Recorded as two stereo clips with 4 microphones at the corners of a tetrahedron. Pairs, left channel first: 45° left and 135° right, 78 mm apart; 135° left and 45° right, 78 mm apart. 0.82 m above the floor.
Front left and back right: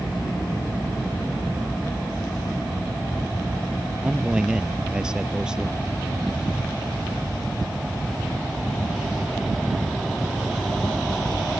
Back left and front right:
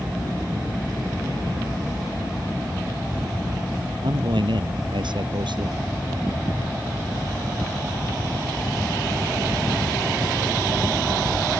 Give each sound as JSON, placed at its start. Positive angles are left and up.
{"t": 4.0, "sound": "a man speaking", "azimuth_deg": -55}